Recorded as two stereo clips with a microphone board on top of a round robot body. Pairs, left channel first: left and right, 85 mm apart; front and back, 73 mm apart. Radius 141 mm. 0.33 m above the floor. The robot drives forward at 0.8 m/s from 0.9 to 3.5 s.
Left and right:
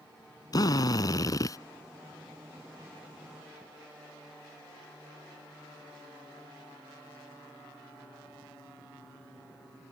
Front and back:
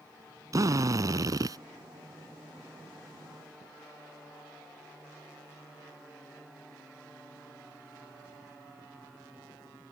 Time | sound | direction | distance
0.5 | a drill | 135° left | ?